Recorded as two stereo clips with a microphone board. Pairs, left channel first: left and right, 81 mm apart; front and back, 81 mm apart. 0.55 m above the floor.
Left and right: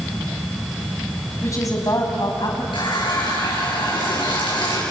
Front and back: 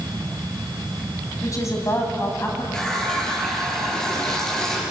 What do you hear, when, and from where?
1.4 s a woman speaking: 45° left, 3.5 m; by 2.6 s 65° left, 3.5 m
2.7 s a running tap: 80° left, 6.5 m